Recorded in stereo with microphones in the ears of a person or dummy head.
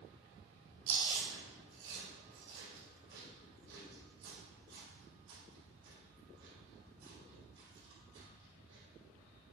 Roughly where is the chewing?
Right.